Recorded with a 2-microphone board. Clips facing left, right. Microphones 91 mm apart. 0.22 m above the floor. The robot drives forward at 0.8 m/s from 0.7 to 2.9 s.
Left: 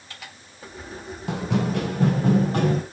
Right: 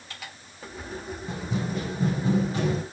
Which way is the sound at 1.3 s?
85° left.